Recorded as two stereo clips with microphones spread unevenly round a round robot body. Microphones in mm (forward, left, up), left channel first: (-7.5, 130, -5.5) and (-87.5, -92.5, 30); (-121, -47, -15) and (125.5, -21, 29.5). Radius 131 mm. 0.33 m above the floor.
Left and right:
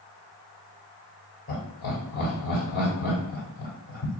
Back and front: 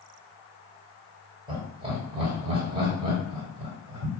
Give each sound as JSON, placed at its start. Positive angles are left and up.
{"t": 1.5, "sound": "laughter", "azimuth_deg": 80, "distance_m": 2.0}